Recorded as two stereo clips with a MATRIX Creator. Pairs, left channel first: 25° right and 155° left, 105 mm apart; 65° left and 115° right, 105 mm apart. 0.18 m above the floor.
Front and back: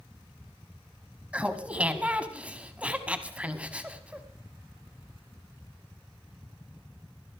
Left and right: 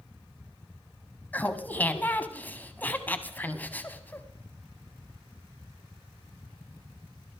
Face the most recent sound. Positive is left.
turn(degrees=105)